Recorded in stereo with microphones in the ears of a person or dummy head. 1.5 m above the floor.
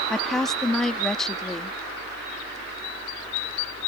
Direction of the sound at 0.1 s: 5° right (ahead or behind).